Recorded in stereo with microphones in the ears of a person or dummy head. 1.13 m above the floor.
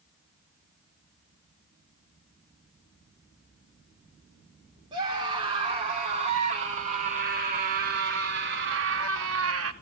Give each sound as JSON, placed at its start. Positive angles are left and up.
{"t": 4.9, "sound": "a scream", "side_deg": -25, "distance_m": 4.0}